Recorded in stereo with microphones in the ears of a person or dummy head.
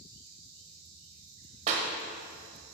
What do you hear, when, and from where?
1.7 s a clap: 40° right (ahead or behind), 0.8 m